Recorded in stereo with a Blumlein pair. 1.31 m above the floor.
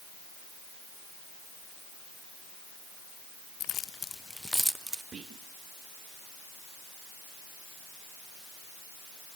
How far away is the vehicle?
No vehicle in this recording.